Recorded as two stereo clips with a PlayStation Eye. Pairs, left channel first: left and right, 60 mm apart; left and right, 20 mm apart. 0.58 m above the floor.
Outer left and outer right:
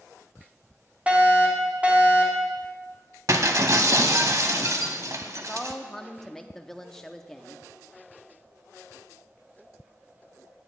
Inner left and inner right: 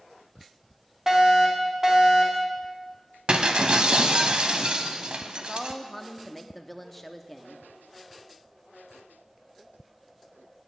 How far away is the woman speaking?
About 0.6 m.